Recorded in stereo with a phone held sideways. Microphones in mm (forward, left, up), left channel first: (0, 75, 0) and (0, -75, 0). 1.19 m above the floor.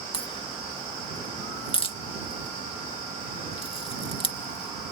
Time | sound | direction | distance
0.1 | a crack | 35° left (ahead or behind) | ?